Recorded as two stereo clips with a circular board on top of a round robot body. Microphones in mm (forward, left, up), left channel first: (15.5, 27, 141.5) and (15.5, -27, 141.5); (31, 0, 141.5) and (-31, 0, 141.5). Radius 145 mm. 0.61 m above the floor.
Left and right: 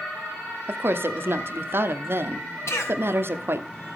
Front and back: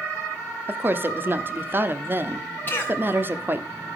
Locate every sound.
0.7 s a woman speaking: 125° right, 1.4 m
2.7 s a cough: 60° left, 4 m